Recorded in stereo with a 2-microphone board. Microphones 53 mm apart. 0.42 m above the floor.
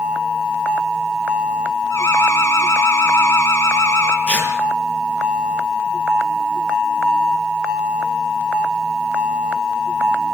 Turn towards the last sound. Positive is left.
turn(degrees=35)  # may be behind; listen again after turning